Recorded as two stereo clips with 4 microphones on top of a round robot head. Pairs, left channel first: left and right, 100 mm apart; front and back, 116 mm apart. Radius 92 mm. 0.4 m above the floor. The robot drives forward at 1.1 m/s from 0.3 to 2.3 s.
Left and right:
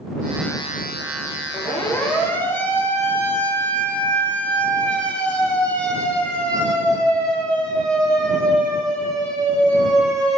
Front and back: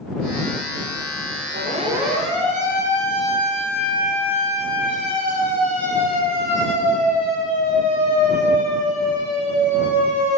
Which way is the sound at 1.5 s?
155° left.